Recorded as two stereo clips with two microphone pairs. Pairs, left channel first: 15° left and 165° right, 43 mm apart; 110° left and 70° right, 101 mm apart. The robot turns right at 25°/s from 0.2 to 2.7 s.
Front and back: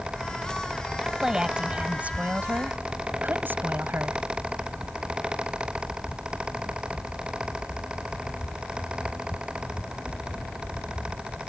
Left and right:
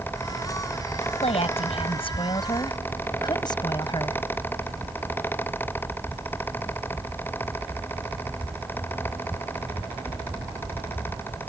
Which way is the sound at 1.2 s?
120° left.